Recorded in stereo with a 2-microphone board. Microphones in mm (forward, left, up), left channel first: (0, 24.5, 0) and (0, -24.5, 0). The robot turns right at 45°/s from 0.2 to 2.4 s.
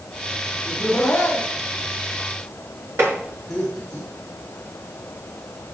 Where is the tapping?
65° right (ahead or behind), 4 m.